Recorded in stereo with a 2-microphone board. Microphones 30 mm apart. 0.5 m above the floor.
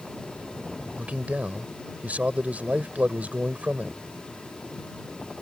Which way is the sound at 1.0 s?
60° right (ahead or behind).